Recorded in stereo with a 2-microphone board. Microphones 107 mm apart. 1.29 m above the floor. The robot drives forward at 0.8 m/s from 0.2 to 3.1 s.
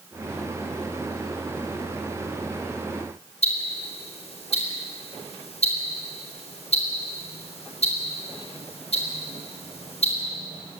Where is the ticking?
65° left (ahead or behind), 4.5 m.